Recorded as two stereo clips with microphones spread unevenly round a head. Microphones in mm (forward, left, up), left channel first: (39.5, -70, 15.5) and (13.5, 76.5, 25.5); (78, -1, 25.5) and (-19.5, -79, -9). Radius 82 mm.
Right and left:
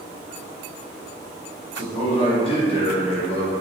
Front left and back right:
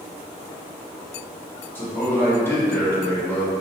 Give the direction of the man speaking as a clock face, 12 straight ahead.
1 o'clock.